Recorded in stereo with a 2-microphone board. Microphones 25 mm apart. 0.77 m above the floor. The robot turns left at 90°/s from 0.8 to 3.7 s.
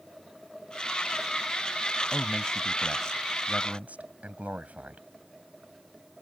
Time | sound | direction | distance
2.1 | a man speaking | 65° left (ahead or behind) | ?